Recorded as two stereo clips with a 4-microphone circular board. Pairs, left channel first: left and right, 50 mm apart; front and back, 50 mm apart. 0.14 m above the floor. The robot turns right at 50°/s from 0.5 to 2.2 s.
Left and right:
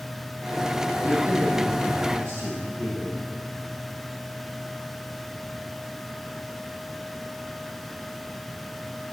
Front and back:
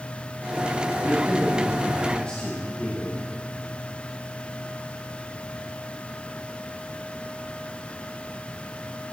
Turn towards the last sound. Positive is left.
turn(degrees=-55)